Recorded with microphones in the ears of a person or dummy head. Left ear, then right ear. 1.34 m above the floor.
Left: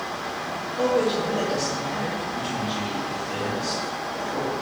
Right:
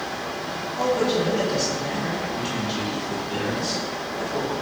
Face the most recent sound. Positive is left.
turn(degrees=30)  # may be behind; listen again after turning